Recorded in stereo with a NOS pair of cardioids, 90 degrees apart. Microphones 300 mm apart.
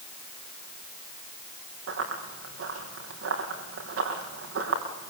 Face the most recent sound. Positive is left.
turn(degrees=-50)